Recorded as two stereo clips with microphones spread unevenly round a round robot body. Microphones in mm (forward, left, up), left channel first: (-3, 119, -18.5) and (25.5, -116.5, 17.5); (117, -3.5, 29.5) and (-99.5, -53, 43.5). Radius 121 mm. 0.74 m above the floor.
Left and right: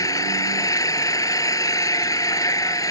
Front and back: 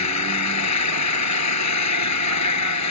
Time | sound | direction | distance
0.0 | an engine running | 20° left | ?